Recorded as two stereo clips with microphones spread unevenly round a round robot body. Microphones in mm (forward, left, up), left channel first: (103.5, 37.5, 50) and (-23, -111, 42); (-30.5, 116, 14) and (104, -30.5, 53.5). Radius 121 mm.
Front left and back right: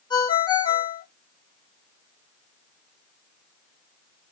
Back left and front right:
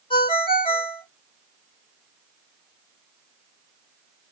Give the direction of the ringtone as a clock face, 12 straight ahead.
8 o'clock.